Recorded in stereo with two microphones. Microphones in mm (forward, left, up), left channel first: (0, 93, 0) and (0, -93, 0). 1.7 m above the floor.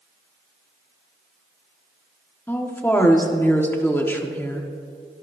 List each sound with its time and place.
2.5 s a woman speaking: 10° left (ahead or behind), 1.5 m